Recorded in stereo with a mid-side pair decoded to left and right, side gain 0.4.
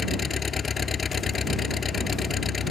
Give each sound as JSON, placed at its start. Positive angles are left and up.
{"t": 0.0, "sound": "an engine running", "azimuth_deg": 45}